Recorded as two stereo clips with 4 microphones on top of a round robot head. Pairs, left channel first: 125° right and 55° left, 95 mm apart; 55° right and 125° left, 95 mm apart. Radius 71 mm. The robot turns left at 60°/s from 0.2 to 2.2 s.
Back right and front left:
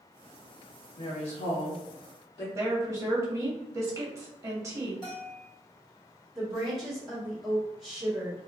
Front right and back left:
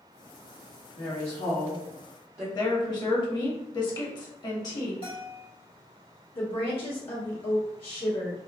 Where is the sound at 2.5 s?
5° right, 0.9 m.